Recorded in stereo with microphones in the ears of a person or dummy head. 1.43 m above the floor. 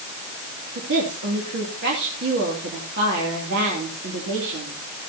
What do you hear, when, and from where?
0.8 s a woman speaking: 65° right (ahead or behind), 2.5 m